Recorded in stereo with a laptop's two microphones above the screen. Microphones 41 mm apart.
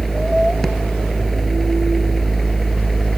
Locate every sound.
0.0 s a machine running: centre (ahead or behind)